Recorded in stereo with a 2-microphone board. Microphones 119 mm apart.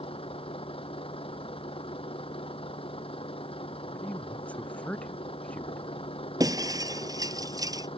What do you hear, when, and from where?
0.0 s a vehicle: 50° left (ahead or behind)
3.9 s a man speaking: 10° left (ahead or behind)
6.4 s breaking glass: 30° right (ahead or behind)